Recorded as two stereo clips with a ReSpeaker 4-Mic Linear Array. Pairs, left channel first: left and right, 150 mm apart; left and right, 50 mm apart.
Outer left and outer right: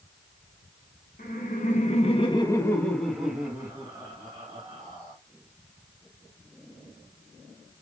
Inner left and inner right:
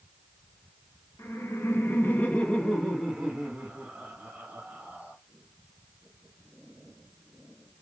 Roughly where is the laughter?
Left.